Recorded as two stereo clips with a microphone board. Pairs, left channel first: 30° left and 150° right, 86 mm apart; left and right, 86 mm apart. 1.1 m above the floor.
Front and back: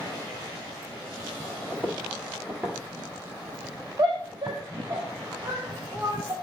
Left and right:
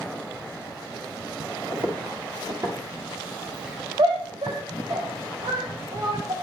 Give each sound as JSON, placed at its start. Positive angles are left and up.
{"t": 1.7, "sound": "footsteps", "azimuth_deg": -65, "distance_m": 2.0}
{"t": 4.0, "sound": "a shout", "azimuth_deg": -100, "distance_m": 1.3}